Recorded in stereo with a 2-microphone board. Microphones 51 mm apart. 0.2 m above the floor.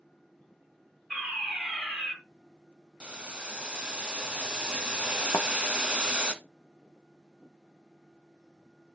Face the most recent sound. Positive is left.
turn(degrees=70)  # may be behind; listen again after turning